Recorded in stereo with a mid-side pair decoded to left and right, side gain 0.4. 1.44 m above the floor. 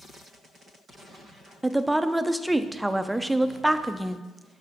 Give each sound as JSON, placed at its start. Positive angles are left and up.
{"t": 1.6, "sound": "a woman speaking", "azimuth_deg": -10, "distance_m": 0.7}